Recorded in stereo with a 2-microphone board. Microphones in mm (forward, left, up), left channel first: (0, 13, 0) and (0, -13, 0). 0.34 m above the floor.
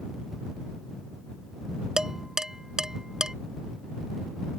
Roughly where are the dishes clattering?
Right.